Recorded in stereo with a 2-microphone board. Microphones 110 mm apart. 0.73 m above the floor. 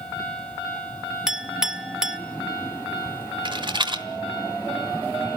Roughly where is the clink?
Centre.